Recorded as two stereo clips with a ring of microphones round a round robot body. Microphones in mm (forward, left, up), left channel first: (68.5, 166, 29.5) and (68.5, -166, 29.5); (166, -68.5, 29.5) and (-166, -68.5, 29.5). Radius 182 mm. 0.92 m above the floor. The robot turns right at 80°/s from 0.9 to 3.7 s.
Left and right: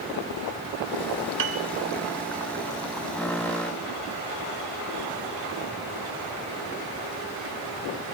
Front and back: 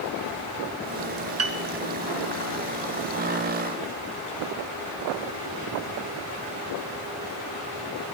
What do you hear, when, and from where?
1.4 s a piano: 135° right, 1.7 m; by 1.6 s 120° right, 1.7 m